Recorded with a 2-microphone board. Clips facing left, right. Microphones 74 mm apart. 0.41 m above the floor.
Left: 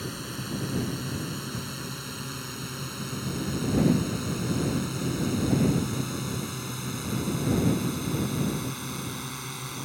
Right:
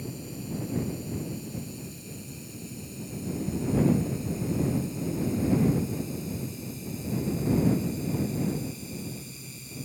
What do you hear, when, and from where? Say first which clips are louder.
0.0 s a drone: left 2 dB; 70° left (ahead or behind)